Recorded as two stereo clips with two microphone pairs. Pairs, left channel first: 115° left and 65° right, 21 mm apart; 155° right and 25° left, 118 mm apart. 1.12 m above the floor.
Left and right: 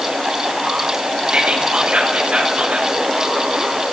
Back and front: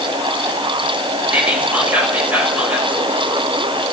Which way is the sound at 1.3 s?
55° right.